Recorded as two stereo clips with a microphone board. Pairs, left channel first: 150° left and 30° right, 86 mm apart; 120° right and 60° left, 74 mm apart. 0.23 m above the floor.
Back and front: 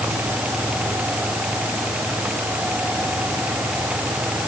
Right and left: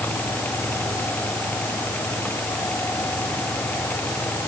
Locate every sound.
Only background noise.